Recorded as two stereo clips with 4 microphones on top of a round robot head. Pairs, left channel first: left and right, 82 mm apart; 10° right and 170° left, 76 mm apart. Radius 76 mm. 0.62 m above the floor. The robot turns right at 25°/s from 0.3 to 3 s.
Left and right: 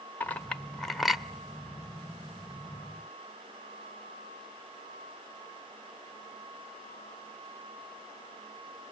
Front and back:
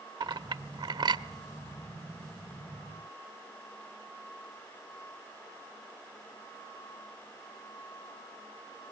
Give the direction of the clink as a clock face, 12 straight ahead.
7 o'clock.